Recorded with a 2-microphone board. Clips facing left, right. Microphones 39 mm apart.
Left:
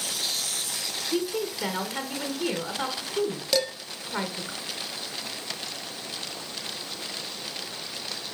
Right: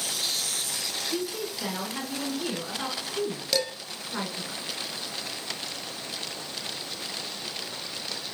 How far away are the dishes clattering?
About 1.4 m.